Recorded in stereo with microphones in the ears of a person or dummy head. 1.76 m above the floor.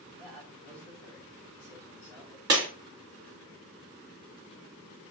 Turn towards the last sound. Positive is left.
turn(degrees=-25)  # may be behind; listen again after turning